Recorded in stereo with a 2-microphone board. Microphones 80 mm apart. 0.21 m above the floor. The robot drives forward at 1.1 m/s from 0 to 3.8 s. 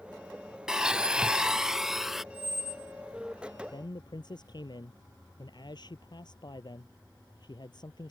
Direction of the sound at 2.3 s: 30° right (ahead or behind).